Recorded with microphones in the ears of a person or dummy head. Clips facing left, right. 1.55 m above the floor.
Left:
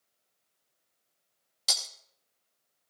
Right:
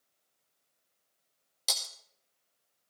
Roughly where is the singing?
No singing in this recording.